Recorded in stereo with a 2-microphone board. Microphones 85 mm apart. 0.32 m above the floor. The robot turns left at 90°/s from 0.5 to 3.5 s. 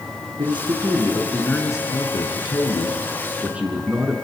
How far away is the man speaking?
About 4.5 m.